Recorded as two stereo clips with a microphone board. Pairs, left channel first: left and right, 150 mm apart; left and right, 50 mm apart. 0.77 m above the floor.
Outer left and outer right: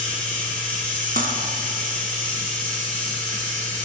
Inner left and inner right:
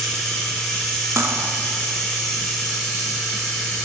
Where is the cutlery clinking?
65° right (ahead or behind), 0.9 m.